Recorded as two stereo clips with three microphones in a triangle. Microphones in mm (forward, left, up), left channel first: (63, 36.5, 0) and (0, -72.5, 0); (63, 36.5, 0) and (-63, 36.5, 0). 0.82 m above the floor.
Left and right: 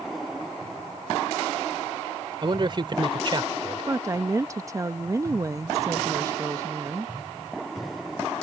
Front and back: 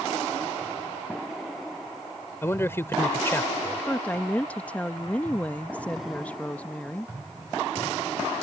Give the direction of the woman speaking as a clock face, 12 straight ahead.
2 o'clock.